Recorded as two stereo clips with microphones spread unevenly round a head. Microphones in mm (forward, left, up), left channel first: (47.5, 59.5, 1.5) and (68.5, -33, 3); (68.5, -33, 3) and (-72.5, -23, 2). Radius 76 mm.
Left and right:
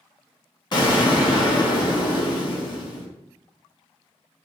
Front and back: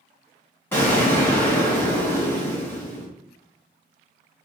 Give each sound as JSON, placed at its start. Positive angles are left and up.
{"t": 0.7, "sound": "an explosion", "azimuth_deg": 70, "distance_m": 0.9}